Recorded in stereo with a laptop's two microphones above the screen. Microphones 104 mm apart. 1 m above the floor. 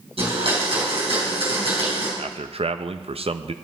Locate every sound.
0.2 s a blender: 65° right (ahead or behind), 4 m
2.2 s a man speaking: 70° right (ahead or behind), 0.6 m